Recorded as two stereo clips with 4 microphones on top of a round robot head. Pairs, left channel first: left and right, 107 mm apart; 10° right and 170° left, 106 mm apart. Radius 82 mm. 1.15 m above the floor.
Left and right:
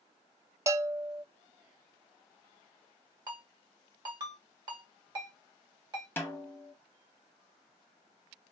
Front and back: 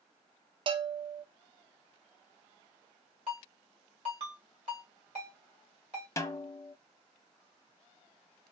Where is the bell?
150° right, 0.5 m.